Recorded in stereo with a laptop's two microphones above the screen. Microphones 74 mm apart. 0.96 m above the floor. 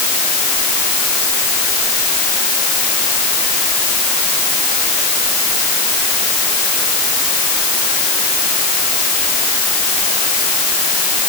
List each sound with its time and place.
Only background noise.